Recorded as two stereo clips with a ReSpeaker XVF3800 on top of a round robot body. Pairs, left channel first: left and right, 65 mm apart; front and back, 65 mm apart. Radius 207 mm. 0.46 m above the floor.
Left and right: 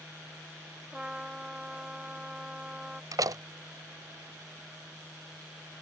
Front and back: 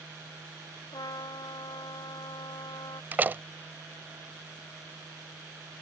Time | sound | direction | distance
0.9 | a trumpet | 15° right | ?
3.1 | a door slam | 115° right | ?